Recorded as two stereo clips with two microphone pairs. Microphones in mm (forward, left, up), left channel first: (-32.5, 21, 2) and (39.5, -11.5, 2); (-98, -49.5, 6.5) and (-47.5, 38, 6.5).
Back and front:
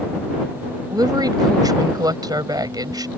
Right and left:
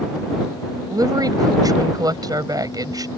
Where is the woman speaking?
10° left.